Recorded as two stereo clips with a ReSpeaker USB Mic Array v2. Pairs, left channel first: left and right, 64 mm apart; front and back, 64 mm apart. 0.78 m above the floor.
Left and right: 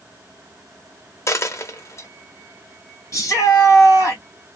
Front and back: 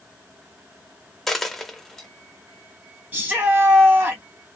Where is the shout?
120° left, 1.8 m.